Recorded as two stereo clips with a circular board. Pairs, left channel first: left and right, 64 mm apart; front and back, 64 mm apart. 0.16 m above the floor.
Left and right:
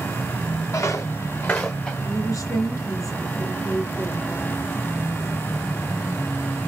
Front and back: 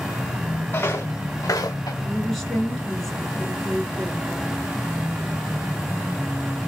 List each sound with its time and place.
0.7 s footsteps: 55° left, 1.1 m; by 1.9 s 15° left, 0.9 m
2.0 s a woman speaking: 85° left, 3 m